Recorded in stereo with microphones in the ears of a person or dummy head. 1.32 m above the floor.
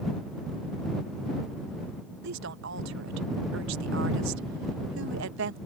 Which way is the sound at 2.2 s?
70° right (ahead or behind).